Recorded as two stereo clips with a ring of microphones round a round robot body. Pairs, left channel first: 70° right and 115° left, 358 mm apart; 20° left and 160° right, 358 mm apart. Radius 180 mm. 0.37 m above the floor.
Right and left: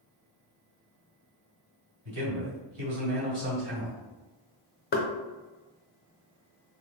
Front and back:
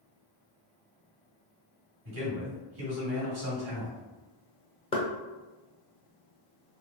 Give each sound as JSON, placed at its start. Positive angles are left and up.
{"t": 2.0, "sound": "a man speaking", "azimuth_deg": 165, "distance_m": 2.0}
{"t": 4.9, "sound": "knocking", "azimuth_deg": -40, "distance_m": 0.6}